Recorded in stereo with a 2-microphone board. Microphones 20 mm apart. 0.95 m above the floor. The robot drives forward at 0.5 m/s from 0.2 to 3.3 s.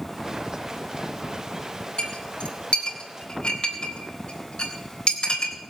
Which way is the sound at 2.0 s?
65° left (ahead or behind).